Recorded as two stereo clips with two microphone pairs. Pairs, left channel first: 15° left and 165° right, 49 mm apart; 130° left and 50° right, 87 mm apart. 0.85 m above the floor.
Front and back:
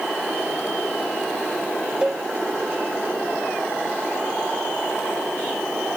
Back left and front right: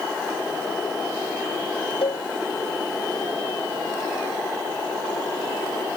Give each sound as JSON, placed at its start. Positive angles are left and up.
{"t": 2.0, "sound": "a cowbell", "azimuth_deg": 125}